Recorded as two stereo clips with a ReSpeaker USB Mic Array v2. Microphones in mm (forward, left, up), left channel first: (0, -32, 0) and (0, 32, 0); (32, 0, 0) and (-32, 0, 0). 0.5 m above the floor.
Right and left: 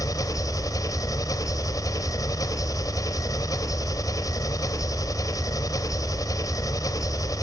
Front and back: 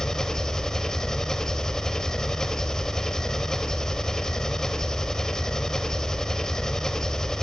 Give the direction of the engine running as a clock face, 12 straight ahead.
3 o'clock.